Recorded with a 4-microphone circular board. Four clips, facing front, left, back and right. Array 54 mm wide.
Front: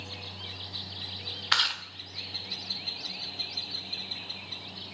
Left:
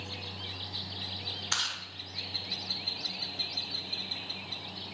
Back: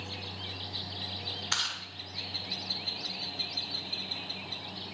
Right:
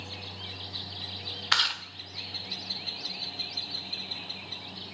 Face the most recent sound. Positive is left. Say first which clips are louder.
# right 8 dB, front 7 dB
turn(degrees=-45)